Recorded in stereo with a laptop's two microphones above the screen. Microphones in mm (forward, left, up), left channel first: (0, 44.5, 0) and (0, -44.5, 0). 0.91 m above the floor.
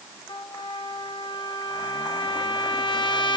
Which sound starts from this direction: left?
A trumpet, at 0.3 s.